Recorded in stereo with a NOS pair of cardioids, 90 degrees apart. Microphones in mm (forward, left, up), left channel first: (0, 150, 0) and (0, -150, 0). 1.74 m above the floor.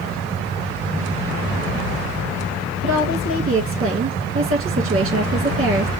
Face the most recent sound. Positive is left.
turn(degrees=-45)